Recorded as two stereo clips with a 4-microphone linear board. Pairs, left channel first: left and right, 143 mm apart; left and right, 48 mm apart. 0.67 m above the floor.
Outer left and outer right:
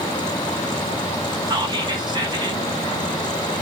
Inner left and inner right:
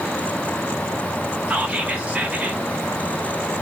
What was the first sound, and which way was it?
Whispering, 30° right (ahead or behind).